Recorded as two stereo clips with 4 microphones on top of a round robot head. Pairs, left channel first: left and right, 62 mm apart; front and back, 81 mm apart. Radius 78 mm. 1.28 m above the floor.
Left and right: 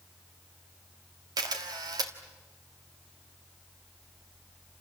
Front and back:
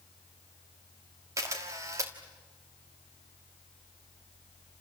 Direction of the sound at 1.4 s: 120° right.